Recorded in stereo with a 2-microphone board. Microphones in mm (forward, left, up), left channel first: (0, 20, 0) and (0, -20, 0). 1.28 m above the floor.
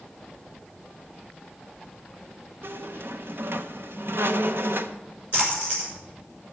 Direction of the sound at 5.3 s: 45° right (ahead or behind).